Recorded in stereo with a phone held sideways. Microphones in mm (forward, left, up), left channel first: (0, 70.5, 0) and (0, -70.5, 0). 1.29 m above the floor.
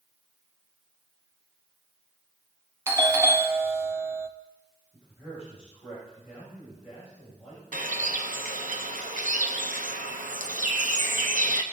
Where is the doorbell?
20° right (ahead or behind), 1.0 m.